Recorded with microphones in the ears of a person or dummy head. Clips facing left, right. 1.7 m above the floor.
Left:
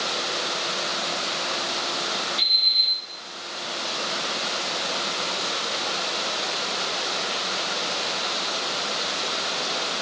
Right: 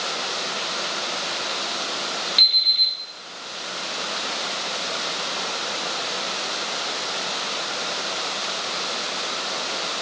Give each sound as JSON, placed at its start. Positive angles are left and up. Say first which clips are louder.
{"t": 2.4, "sound": "an alarm clock", "louder": "even", "side_deg": -25, "distance_m": 1.1}